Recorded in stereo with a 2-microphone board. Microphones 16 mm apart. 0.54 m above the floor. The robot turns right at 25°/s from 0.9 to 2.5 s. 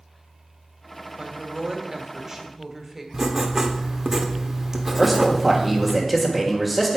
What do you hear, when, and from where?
1.2 s a woman speaking: 50° right, 2 m; by 3.0 s 15° right, 2 m
3.1 s writing: 25° right (ahead or behind), 1.4 m
5.0 s a man speaking: 10° right (ahead or behind), 1.8 m